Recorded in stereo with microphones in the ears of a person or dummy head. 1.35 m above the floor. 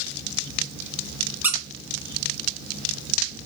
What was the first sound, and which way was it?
A squeak, 10° right (ahead or behind).